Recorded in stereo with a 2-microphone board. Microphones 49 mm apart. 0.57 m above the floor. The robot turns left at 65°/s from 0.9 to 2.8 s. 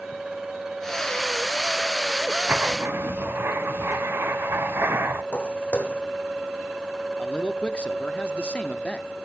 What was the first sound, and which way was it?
Writing, 35° right (ahead or behind).